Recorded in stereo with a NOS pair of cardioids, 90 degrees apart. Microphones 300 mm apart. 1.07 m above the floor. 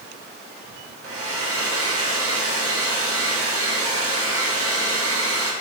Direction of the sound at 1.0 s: 55° right.